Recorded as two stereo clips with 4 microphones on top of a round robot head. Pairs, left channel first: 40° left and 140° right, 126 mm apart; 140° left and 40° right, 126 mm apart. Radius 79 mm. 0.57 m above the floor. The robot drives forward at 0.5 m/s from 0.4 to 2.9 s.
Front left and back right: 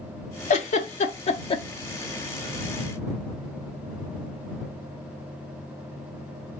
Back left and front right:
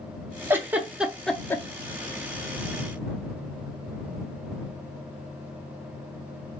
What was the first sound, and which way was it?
A giggle, 30° left.